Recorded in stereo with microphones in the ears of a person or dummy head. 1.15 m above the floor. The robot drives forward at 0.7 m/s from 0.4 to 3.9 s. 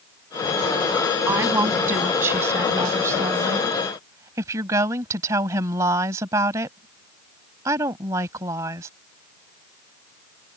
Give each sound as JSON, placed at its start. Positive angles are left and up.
{"t": 1.3, "sound": "a woman speaking", "side_deg": -10}